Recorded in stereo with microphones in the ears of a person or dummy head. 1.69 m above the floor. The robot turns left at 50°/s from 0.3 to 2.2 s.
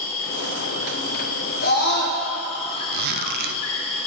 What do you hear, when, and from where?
0.0 s an insect: 130° left, 1.7 m; by 4.1 s 35° left, 1.7 m
1.6 s a scream: 50° left (ahead or behind), 1.0 m; by 2.2 s 75° left (ahead or behind), 1.0 m
2.9 s a zipper: 50° right (ahead or behind), 0.5 m